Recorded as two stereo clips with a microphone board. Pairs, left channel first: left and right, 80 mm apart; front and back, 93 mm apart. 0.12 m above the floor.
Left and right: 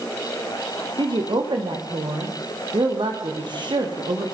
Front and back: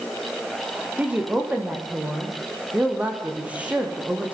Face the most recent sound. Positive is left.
turn(degrees=-105)